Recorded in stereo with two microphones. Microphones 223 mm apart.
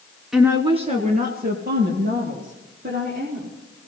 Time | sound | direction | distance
0.3 | a woman speaking | 5° right (ahead or behind) | 1.2 m